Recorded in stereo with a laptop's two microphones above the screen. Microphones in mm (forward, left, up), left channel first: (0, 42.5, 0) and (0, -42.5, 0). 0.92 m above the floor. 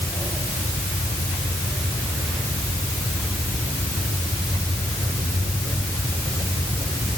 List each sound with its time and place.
Only background noise.